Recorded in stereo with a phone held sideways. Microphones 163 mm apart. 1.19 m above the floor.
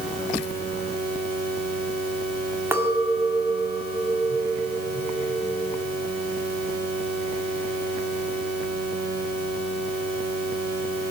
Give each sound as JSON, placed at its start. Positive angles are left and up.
{"t": 2.7, "sound": "a clink", "side_deg": -15, "distance_m": 1.9}